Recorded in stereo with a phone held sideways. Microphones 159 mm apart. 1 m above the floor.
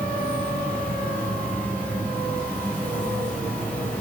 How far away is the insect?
About 4 m.